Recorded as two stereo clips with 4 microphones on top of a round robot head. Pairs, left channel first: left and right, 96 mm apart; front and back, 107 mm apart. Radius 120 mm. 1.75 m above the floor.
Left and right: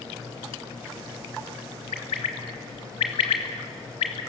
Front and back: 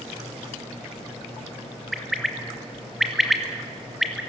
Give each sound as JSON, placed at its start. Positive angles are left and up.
{"t": 1.9, "sound": "a bird", "azimuth_deg": 95, "distance_m": 1.2}